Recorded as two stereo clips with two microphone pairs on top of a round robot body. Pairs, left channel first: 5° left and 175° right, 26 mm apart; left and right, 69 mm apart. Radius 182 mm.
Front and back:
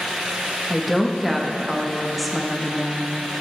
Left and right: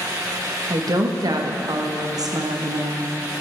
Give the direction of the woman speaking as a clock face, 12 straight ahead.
3 o'clock.